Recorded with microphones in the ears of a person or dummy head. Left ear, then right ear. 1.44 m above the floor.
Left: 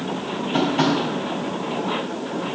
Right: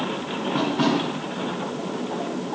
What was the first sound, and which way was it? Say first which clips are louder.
Tapping: left 3 dB; 50° left (ahead or behind).